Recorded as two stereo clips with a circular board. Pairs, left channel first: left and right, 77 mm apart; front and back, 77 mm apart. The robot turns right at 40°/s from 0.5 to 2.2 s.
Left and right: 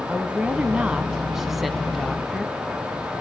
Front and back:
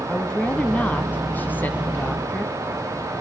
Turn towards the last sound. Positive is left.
turn(degrees=20)